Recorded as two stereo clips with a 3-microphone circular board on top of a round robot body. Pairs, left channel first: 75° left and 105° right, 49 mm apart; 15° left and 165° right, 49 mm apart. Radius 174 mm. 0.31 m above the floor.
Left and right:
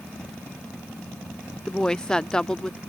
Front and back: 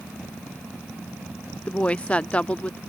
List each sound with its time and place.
1.7 s a woman speaking: 20° left